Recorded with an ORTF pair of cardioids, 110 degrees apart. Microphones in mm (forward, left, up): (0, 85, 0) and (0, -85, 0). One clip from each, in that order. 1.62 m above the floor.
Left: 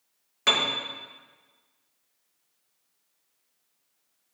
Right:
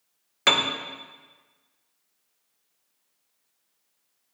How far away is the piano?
About 0.8 m.